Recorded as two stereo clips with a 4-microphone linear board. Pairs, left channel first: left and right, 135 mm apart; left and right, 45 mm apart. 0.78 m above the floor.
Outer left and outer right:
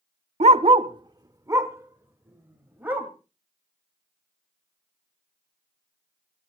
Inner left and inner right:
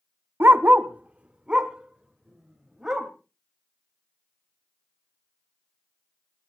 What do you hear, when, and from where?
0.4 s a dog barking: 55° right (ahead or behind), 0.5 m; by 3.1 s 15° right (ahead or behind), 2 m